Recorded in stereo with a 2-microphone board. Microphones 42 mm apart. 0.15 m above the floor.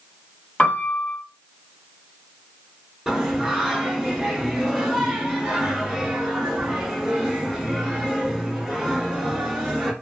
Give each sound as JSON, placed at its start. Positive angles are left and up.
{"t": 0.6, "sound": "a piano", "side_deg": 30, "distance_m": 2.0}
{"t": 3.1, "sound": "singing", "side_deg": -5, "distance_m": 1.3}